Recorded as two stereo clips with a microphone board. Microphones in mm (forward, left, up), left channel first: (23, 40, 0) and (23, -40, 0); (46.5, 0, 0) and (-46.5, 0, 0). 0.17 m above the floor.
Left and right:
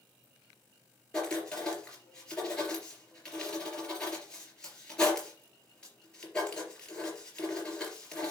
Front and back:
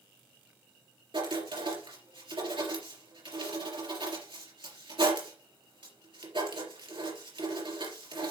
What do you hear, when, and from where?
1.1 s writing: 170° left, 3.5 m